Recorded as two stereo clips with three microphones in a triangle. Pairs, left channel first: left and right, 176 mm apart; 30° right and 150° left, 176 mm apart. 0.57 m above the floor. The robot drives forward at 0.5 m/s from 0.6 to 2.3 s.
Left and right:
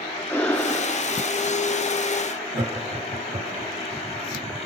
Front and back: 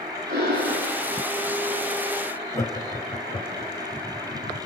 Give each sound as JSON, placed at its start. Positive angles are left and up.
{"t": 0.3, "sound": "breathing", "azimuth_deg": 165, "distance_m": 1.7}
{"t": 2.5, "sound": "laughter", "azimuth_deg": -100, "distance_m": 1.2}